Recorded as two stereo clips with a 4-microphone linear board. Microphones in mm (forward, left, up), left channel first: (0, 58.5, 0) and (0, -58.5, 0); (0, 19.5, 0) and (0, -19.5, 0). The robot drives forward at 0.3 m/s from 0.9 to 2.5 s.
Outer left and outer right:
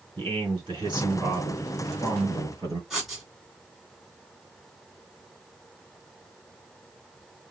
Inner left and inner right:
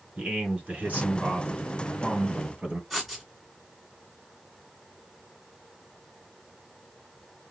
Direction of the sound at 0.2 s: 40° right (ahead or behind).